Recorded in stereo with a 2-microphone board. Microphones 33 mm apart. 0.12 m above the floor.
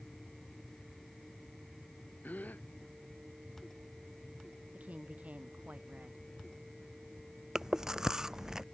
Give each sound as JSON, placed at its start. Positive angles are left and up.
{"t": 2.2, "sound": "a gasp", "side_deg": 60}
{"t": 4.7, "sound": "a woman speaking", "side_deg": -50}
{"t": 7.5, "sound": "chewing", "side_deg": -20}